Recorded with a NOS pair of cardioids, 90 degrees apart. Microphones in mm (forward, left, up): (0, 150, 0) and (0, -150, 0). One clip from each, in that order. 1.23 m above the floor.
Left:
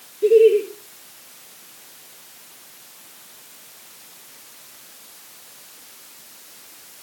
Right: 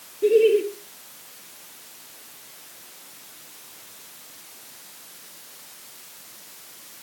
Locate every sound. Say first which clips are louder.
0.2 s laughter: left 4 dB; straight ahead, 3.5 m